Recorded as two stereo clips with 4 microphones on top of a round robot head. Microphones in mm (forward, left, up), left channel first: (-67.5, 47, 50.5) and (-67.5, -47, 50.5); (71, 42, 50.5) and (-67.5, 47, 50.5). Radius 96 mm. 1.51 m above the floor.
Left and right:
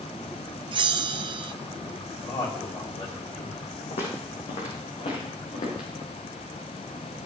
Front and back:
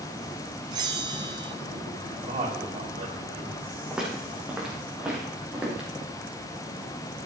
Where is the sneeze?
No sneeze in this recording.